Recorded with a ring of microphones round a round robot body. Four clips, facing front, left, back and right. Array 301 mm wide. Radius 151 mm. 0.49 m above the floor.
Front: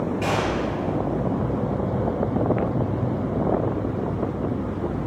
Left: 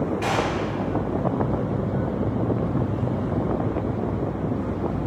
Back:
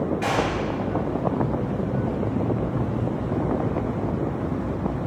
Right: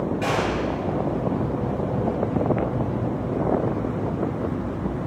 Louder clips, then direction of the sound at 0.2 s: Right 2 dB, front 2 dB; 40° right.